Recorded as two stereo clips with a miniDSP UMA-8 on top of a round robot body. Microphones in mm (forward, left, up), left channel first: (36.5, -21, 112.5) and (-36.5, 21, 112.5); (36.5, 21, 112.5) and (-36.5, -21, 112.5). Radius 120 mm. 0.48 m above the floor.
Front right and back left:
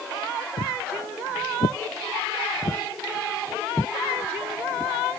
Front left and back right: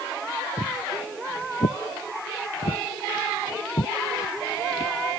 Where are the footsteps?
10° right; by 4.9 s 65° left.